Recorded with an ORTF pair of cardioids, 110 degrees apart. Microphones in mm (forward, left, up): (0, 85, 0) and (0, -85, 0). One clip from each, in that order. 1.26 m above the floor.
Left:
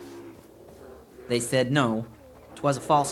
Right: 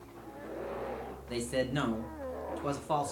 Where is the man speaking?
55° left, 0.8 m.